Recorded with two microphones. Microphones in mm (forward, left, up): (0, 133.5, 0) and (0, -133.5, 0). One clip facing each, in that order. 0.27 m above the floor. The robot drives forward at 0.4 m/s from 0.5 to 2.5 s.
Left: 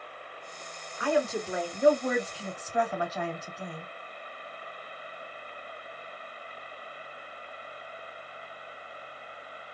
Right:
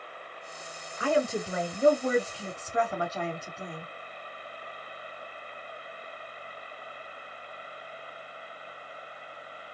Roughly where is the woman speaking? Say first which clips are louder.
Right 1 dB; right.